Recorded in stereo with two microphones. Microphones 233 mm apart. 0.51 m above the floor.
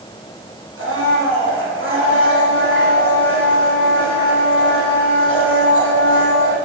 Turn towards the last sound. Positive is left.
turn(degrees=-65)  # may be behind; listen again after turning